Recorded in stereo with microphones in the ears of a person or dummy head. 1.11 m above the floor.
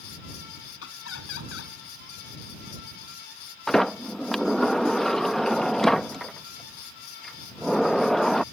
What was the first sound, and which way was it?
Laughter, 80° left.